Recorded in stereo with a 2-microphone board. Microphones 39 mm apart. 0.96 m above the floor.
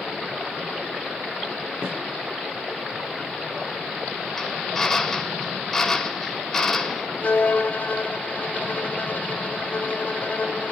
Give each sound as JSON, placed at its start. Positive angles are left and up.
{"t": 1.8, "sound": "a snare drum", "side_deg": -75, "distance_m": 7.0}
{"t": 4.4, "sound": "a drill", "side_deg": 10, "distance_m": 3.0}
{"t": 7.2, "sound": "a violin", "side_deg": 45, "distance_m": 2.5}